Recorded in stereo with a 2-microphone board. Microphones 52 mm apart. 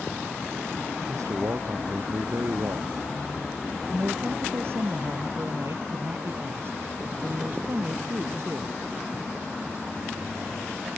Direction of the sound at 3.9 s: 55° right (ahead or behind).